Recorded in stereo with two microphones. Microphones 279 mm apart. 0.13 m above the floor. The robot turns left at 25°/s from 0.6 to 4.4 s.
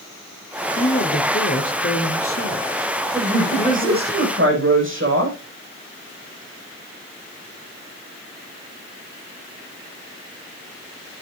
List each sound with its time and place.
0.8 s a woman speaking: 120° left, 2.5 m; by 4.1 s 40° left, 2.5 m
3.1 s a woman speaking: 15° right, 7 m; by 5.4 s 45° right, 7 m